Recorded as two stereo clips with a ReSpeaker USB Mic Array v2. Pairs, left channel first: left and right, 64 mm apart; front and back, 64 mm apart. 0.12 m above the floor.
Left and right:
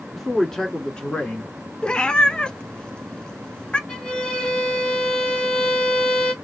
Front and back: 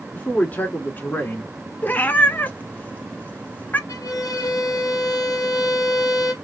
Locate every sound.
0.1 s a man speaking: straight ahead, 1.8 m; by 1.5 s 35° left, 2 m
1.8 s a cat meowing: 25° left, 0.7 m
3.9 s a violin: 10° left, 1.1 m